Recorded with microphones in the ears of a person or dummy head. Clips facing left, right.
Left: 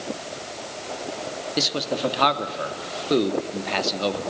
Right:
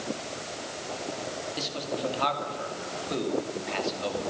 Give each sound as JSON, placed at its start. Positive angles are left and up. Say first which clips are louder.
{"t": 1.6, "sound": "a man speaking", "louder": "left 9 dB", "side_deg": 70, "distance_m": 2.5}